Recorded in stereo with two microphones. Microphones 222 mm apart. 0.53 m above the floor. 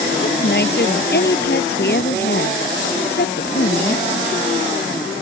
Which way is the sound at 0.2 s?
55° left (ahead or behind).